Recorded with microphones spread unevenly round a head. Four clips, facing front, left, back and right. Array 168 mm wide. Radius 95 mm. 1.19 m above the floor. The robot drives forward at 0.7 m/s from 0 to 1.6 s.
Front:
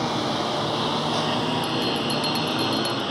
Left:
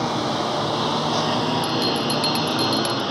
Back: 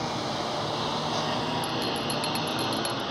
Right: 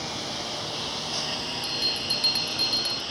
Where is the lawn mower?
40° left; by 3.1 s 50° left.